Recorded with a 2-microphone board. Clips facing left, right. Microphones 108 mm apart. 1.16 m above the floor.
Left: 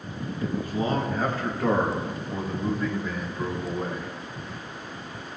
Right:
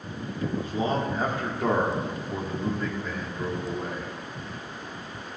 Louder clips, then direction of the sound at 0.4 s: Even; 30° right (ahead or behind).